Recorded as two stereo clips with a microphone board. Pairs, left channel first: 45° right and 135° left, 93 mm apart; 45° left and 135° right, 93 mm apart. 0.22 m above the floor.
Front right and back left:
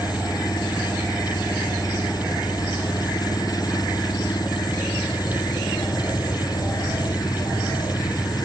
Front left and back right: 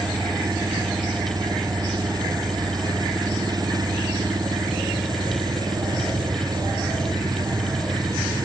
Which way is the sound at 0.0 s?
90° right.